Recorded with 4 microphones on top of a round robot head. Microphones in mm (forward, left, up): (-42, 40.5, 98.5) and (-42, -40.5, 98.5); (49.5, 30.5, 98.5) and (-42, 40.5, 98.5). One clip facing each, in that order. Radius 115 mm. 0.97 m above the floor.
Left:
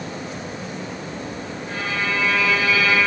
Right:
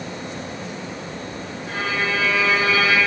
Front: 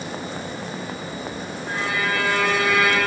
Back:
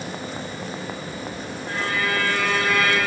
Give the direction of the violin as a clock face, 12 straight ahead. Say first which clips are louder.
Right 2 dB, even; 3 o'clock.